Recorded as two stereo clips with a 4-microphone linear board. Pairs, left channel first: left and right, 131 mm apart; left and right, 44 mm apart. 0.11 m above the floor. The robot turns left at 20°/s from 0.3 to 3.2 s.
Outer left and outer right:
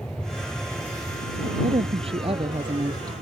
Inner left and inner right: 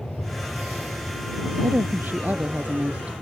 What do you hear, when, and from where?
0.0 s an aircraft: 10° left (ahead or behind); by 3.2 s 65° right (ahead or behind)
1.6 s a woman speaking: 55° right (ahead or behind); by 3.1 s 30° right (ahead or behind)